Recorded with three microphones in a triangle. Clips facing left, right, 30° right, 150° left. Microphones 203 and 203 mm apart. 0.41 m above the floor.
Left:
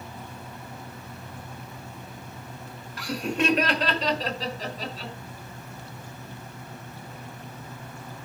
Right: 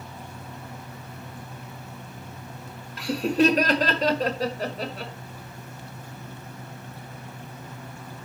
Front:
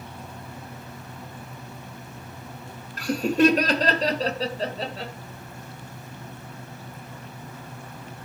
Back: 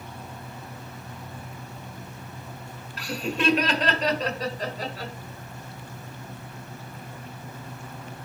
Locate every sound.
3.0 s laughter: 35° right, 1.4 m; by 5.1 s 95° right, 2.0 m